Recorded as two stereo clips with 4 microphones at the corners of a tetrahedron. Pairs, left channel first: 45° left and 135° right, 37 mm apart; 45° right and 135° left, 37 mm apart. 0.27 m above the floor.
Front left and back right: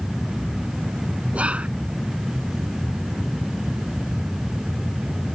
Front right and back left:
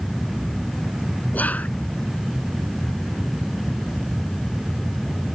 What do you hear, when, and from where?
1.3 s whispering: 85° right